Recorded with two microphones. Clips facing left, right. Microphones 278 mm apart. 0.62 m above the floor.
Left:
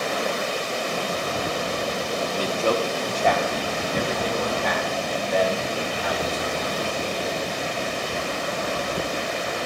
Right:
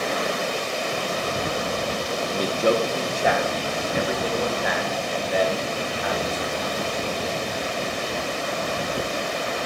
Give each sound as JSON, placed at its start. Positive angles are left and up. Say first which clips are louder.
{"t": 2.3, "sound": "a man speaking", "louder": "right 3 dB", "side_deg": -20, "distance_m": 0.7}